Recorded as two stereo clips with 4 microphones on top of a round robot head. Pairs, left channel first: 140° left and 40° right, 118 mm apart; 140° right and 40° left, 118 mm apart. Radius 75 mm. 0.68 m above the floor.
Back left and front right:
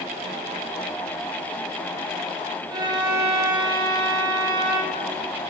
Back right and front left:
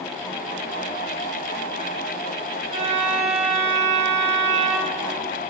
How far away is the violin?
About 6 m.